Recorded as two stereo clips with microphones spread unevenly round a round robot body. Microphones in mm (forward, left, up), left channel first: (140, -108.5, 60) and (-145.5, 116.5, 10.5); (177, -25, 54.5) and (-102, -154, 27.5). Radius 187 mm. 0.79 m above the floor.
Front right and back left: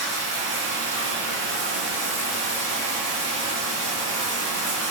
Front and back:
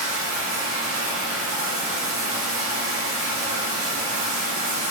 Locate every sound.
0.0 s running water: 175° left, 2.5 m